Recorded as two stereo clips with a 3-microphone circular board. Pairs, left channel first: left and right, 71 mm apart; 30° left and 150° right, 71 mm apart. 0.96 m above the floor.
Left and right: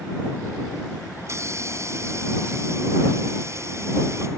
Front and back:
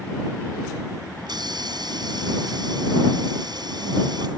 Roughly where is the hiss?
Behind right.